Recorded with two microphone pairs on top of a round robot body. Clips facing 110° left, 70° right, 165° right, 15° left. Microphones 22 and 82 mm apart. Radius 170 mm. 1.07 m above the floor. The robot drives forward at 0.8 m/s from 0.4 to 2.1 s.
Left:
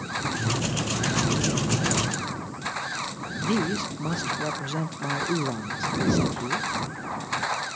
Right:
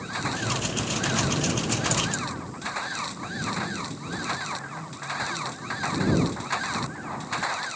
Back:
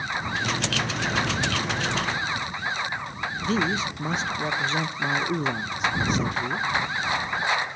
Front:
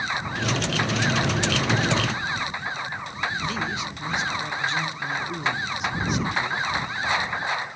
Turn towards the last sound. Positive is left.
turn(degrees=140)